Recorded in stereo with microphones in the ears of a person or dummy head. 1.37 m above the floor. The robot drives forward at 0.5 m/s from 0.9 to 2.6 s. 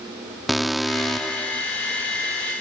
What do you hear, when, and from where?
0.5 s an alarm: centre (ahead or behind)